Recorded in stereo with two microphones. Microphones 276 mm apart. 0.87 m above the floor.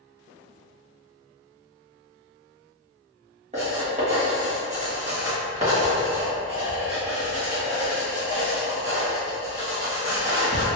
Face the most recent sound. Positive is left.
turn(degrees=-25)  # may be behind; listen again after turning